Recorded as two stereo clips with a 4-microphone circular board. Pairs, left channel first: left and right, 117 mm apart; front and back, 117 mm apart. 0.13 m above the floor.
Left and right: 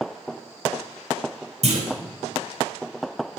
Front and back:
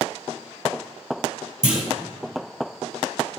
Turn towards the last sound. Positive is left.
turn(degrees=-100)